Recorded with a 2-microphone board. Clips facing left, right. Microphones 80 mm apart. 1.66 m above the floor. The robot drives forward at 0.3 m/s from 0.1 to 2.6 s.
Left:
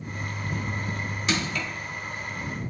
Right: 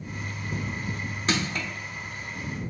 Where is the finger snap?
I don't hear a finger snap.